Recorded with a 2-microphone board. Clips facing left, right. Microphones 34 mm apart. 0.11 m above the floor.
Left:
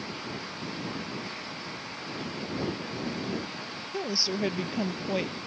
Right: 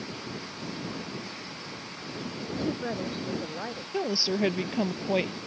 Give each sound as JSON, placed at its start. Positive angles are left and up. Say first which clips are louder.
{"t": 2.5, "sound": "a woman speaking", "louder": "right 5 dB", "side_deg": -55}
{"t": 3.9, "sound": "a woman speaking", "louder": "right 3 dB", "side_deg": -20}